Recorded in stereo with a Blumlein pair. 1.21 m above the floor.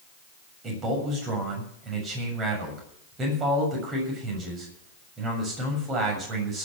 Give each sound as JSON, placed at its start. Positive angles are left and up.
{"t": 0.6, "sound": "a man speaking", "azimuth_deg": -25, "distance_m": 7.0}